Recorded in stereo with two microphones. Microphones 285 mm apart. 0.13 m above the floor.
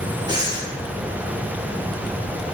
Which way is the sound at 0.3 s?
15° right (ahead or behind).